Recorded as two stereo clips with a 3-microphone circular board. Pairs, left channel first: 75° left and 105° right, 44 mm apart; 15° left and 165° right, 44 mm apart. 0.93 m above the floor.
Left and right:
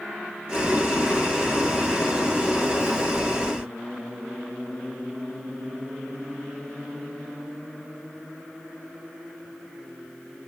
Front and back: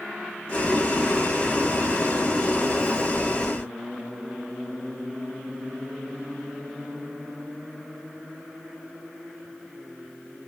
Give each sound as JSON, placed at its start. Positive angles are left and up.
{"t": 0.5, "sound": "boiling", "azimuth_deg": -45, "distance_m": 1.5}